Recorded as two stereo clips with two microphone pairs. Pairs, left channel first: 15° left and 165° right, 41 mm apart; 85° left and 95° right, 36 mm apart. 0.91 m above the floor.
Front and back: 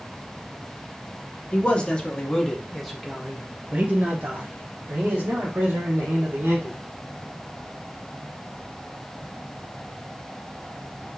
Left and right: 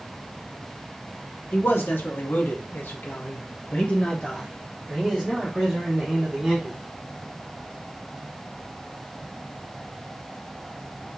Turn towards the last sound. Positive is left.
turn(degrees=-165)